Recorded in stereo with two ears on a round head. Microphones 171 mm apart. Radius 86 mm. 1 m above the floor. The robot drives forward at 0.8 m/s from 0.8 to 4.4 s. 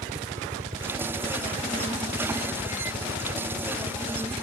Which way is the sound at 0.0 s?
30° right (ahead or behind).